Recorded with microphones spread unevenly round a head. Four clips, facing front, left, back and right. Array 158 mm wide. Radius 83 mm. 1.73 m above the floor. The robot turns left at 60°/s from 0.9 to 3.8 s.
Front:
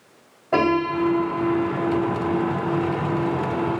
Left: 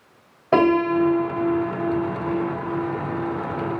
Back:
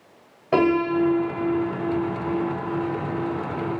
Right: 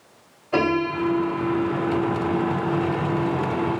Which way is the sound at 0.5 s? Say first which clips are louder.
Left 5 dB, back 1 dB; 110° left.